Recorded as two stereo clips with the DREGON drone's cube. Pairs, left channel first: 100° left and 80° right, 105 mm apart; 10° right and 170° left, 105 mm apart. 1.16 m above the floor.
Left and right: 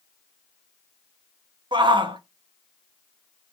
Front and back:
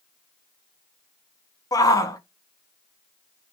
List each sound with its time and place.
1.7 s a shout: 60° right, 0.6 m